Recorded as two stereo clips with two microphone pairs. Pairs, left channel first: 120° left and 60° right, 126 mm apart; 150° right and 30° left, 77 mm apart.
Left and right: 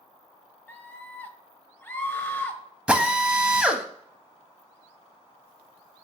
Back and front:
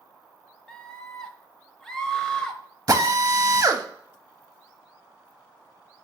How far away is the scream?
About 0.9 m.